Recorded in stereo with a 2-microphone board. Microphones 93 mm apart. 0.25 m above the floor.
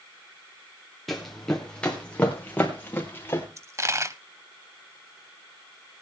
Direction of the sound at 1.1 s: Centre (ahead or behind).